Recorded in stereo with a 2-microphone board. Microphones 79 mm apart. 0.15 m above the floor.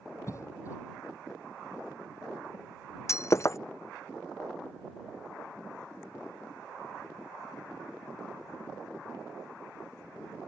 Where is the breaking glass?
35° left (ahead or behind).